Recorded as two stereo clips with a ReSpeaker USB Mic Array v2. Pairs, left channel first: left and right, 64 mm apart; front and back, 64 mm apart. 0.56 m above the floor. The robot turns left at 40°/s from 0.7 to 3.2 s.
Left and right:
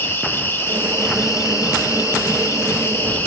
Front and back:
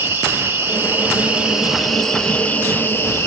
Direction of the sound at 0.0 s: 135° left.